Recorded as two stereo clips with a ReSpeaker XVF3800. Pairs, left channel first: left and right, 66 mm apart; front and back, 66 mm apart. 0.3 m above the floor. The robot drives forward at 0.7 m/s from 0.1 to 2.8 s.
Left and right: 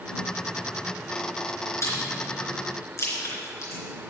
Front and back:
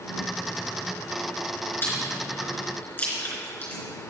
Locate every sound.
1.8 s chewing: 55° left, 4 m; by 3.8 s 65° left, 4 m